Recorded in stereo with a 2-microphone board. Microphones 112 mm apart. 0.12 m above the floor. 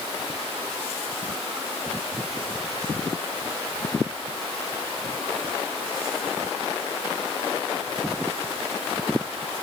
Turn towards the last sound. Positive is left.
No sound to turn to.